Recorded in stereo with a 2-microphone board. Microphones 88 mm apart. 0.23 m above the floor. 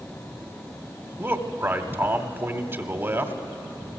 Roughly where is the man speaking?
Right.